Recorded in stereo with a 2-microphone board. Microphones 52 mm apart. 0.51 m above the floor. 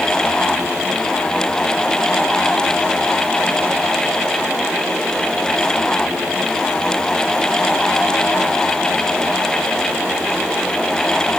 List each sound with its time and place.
Only background noise.